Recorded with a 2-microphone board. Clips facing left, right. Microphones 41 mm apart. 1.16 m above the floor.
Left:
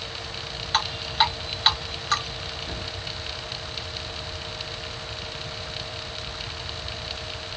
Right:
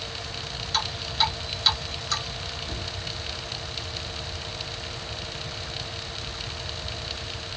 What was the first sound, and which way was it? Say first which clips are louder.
Dripping: left 4 dB; 35° left (ahead or behind).